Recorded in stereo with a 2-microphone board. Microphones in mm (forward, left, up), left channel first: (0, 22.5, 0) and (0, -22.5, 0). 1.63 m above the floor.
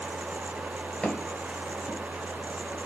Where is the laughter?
I don't hear laughter.